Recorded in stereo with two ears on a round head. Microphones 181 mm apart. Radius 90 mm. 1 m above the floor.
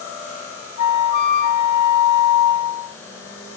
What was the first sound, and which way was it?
A flute, 50° left (ahead or behind).